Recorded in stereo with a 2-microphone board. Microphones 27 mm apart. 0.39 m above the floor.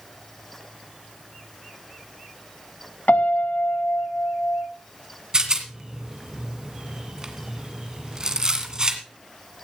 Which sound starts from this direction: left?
A piano, at 3.1 s.